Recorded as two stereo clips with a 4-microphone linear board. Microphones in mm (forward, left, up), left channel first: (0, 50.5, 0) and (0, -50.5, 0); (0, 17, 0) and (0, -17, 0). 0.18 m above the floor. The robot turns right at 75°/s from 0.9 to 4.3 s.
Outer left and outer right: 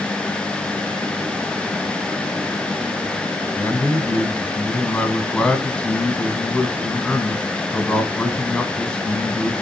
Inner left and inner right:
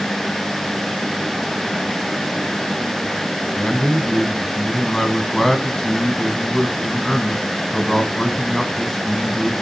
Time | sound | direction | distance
3.6 | a man speaking | 20° left (ahead or behind) | 1.5 m